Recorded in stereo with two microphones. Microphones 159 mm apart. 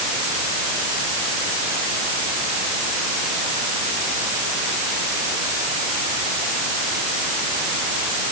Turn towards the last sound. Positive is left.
No sound to turn to.